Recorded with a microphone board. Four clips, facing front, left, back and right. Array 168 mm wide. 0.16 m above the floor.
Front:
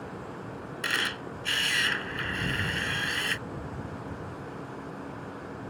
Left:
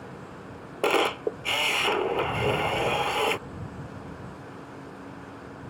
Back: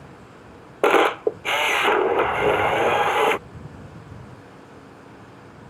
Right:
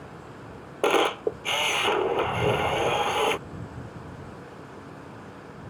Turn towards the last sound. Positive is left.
turn(degrees=-175)